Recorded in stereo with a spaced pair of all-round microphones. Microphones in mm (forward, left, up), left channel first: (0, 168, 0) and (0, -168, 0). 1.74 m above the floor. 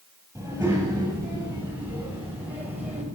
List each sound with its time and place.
0.3 s a child speaking: 5° right (ahead or behind), 8.5 m